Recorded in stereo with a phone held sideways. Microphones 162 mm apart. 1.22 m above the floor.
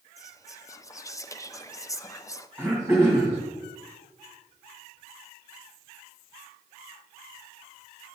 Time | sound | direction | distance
0.2 | whispering | 20° left (ahead or behind) | 0.6 m
2.6 | throat clearing | 15° right (ahead or behind) | 2.5 m